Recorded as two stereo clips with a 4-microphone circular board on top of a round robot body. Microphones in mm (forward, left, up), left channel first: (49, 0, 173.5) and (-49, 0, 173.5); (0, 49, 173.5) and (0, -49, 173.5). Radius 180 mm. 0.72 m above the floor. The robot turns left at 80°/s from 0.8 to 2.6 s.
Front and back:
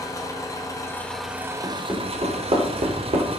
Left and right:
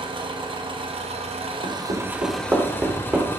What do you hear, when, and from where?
0.0 s an engine running: 55° right, 0.8 m; by 3.4 s 160° left, 0.8 m
1.6 s hammering: 85° right, 1.3 m; by 3.3 s 160° right, 1.3 m